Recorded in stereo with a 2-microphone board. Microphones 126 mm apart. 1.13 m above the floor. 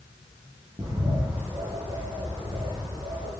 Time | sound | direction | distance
0.8 | a bird | 25° right (ahead or behind) | 7 m